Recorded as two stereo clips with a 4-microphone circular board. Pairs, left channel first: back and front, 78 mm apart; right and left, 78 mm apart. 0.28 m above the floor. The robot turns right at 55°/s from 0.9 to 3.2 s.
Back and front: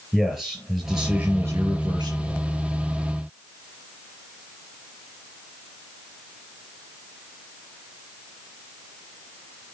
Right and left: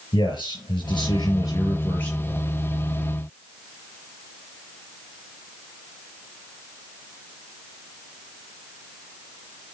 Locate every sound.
0.1 s a man speaking: 85° right, 4.5 m; by 2.4 s 5° right, 4.5 m